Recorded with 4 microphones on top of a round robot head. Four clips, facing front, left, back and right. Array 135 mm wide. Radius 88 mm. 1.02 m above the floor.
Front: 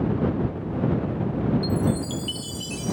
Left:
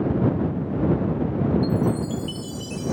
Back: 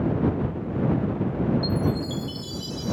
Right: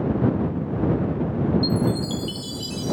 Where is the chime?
35° right.